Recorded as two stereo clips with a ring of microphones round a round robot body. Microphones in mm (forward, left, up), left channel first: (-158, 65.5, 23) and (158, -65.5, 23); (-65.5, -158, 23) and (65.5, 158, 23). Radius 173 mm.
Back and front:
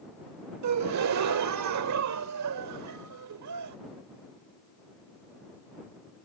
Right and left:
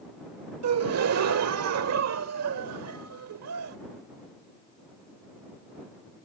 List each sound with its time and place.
0.6 s a gasp: 20° left